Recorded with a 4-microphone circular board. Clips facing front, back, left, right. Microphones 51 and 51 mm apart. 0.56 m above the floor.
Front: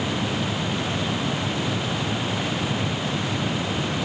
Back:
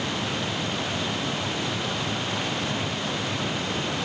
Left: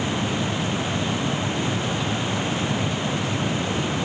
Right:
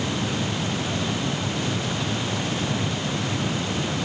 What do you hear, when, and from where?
Only background noise.